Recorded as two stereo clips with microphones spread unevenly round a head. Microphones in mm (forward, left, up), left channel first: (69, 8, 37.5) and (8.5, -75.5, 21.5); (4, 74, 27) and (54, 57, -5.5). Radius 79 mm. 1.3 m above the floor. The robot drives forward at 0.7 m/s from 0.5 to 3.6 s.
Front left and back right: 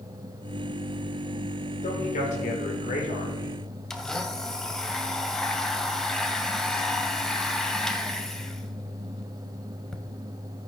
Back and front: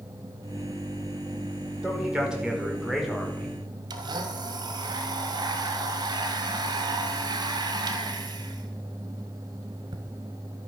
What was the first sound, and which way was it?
A man speaking, 55° left.